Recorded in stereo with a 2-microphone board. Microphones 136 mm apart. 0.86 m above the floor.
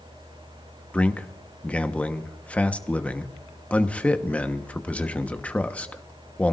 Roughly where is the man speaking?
Centre.